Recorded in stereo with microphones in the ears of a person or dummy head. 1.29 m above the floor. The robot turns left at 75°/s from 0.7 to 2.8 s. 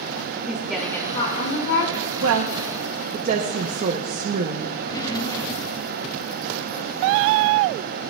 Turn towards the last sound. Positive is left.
turn(degrees=25)  # may be behind; listen again after turning